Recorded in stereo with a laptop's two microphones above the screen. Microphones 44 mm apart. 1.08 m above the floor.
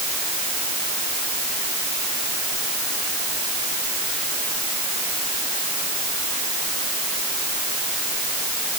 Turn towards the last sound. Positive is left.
No sound to turn to.